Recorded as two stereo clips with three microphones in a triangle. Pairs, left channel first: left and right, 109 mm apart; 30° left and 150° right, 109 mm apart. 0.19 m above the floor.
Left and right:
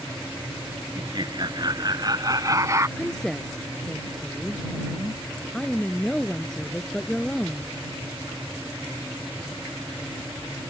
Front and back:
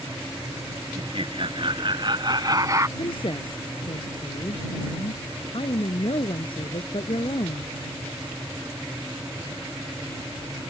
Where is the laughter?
130° right; by 2.9 s 120° right.